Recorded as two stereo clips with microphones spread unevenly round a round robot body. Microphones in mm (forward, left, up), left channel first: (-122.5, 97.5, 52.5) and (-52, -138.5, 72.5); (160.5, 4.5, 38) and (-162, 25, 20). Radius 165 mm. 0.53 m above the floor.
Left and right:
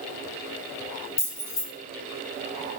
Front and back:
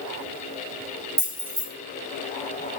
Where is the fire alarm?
I don't hear a fire alarm.